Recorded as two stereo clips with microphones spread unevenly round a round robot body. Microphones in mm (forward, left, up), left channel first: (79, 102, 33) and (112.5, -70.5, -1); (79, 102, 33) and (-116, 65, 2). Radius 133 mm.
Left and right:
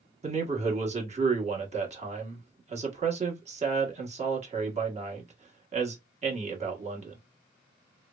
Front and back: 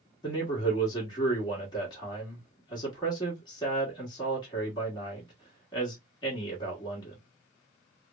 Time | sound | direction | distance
0.2 | a man speaking | 65° right | 1.4 m